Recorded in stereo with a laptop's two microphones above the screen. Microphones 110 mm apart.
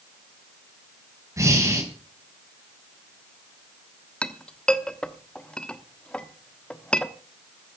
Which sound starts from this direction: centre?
A clink, at 4.2 s.